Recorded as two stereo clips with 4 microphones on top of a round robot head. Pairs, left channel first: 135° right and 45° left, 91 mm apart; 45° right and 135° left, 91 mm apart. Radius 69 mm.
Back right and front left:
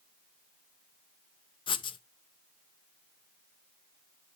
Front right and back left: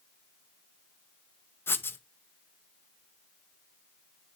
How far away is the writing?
About 0.7 m.